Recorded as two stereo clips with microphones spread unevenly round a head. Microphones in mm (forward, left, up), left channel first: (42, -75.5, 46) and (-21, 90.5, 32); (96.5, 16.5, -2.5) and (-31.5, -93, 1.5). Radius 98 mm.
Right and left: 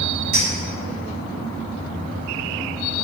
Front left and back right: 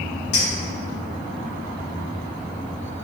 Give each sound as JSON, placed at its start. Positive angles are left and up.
{"t": 0.3, "sound": "a clink", "azimuth_deg": 75, "distance_m": 1.7}